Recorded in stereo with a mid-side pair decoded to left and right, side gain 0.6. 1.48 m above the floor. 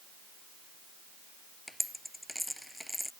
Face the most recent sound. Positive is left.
turn(degrees=0)